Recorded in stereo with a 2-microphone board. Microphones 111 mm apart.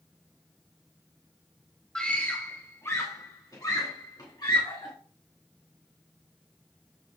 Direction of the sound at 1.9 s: 5° left (ahead or behind).